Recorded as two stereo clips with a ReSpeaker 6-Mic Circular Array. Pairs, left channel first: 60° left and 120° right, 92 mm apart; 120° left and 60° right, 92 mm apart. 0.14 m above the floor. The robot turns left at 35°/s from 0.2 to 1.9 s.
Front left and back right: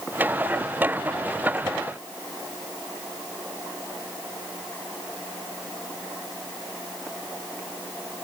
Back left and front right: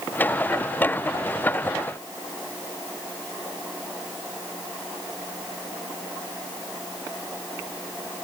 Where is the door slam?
No door slam in this recording.